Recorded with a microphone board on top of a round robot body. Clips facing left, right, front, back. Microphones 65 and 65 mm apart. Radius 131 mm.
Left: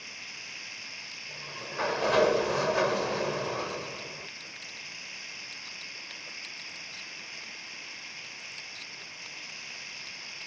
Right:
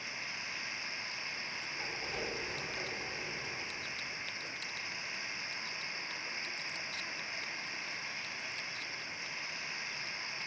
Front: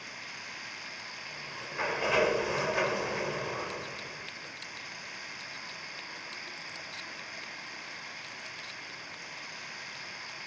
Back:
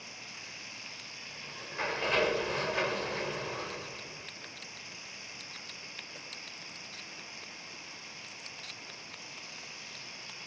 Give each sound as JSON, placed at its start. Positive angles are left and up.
{"t": 0.0, "sound": "running water", "azimuth_deg": -35}
{"t": 1.3, "sound": "a sliding door", "azimuth_deg": 80}